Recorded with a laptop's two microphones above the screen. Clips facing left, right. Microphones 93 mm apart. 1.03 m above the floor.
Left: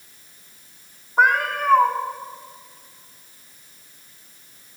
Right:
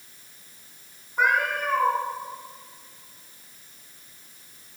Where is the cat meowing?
60° left (ahead or behind), 1.6 m.